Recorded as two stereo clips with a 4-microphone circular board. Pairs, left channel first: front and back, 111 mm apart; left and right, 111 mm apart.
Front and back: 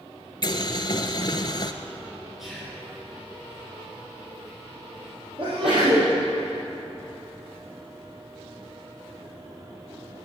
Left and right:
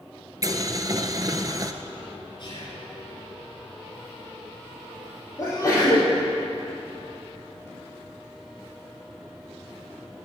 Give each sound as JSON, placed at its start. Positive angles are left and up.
{"t": 0.4, "sound": "boiling", "azimuth_deg": -40, "distance_m": 0.7}
{"t": 2.4, "sound": "whispering", "azimuth_deg": 90, "distance_m": 2.5}
{"t": 5.4, "sound": "a sneeze", "azimuth_deg": 150, "distance_m": 4.5}